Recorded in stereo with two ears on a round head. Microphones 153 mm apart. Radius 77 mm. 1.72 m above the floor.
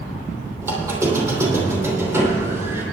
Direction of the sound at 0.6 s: 15° right (ahead or behind).